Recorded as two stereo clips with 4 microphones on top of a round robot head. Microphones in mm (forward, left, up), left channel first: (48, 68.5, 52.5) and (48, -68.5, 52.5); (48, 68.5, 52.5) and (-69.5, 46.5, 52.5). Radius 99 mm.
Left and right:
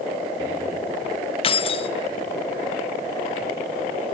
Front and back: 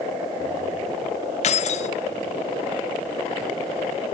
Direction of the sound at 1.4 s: 40° left.